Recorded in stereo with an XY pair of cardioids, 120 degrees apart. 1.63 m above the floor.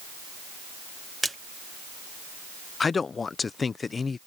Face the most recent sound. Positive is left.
turn(degrees=30)